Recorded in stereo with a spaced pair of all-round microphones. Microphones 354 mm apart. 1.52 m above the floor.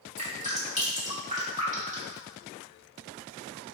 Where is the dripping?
20° right (ahead or behind), 1.2 m.